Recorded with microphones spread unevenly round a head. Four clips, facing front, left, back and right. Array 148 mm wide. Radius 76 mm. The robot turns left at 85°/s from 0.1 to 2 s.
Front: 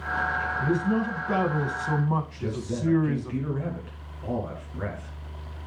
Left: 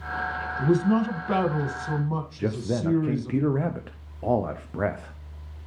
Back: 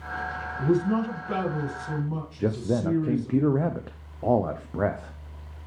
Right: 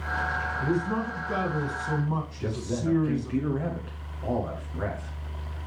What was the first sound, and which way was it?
A man speaking, 120° left.